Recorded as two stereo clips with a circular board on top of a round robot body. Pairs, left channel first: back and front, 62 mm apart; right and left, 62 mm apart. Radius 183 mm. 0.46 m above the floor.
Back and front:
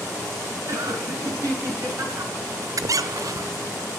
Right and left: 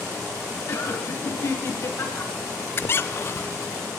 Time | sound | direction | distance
0.7 | laughter | 40° right | 7 m
2.8 | a squeak | 35° right | 0.6 m